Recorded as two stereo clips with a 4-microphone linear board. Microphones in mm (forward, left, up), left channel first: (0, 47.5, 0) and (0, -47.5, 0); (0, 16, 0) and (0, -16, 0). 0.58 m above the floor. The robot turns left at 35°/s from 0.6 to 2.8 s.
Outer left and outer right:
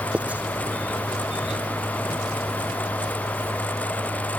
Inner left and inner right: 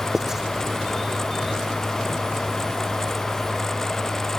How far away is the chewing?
I don't hear chewing.